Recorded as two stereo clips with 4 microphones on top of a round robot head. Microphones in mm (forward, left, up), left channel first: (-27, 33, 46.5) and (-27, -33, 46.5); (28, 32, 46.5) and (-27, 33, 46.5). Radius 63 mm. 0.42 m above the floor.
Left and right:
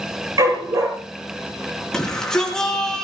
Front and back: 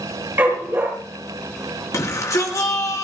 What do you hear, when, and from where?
0.4 s a dog barking: 120° right, 4.5 m
1.9 s a shout: 10° left, 5.5 m